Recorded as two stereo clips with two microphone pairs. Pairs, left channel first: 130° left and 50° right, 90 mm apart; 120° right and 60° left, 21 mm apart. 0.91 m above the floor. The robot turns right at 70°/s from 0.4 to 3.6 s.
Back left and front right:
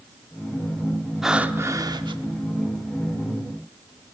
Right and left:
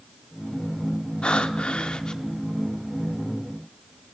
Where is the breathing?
135° right, 0.8 m; by 2.2 s 65° right, 0.8 m.